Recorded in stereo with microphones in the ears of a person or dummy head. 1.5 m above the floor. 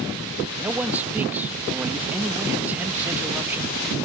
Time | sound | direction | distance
0.6 | a man speaking | 5° right (ahead or behind) | ?